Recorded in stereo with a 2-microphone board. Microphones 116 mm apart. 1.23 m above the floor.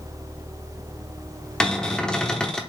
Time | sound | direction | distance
1.6 | a cupboard door | 5° left (ahead or behind) | 0.8 m